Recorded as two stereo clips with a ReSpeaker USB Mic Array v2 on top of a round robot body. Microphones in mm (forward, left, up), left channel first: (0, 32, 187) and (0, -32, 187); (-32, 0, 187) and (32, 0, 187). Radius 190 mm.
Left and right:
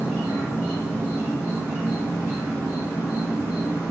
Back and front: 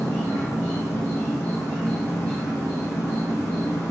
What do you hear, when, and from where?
0.0 s an insect: 145° right, 1.6 m